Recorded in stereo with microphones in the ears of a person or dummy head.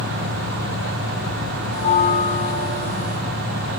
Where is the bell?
55° right (ahead or behind), 9.5 m.